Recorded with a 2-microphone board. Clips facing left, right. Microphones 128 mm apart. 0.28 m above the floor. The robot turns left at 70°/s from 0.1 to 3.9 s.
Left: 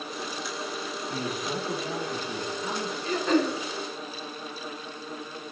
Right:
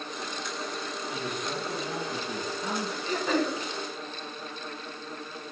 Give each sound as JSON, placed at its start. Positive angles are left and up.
{"t": 1.1, "sound": "a man speaking", "azimuth_deg": 60, "distance_m": 4.0}
{"t": 3.0, "sound": "throat clearing", "azimuth_deg": -160, "distance_m": 5.0}